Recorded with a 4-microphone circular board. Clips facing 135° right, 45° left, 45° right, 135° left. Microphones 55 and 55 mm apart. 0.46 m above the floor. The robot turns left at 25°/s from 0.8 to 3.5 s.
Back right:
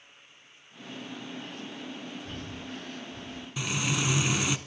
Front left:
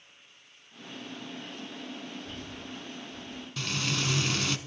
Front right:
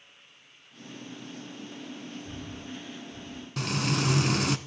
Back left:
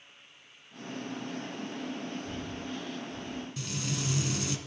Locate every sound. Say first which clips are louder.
2.2 s breathing: back right 2 dB, back left 2 dB; 110° right, 1.1 m; by 3.5 s 140° right, 1.1 m
3.6 s frying: back right 2 dB, front right 10 dB; 60° right, 0.7 m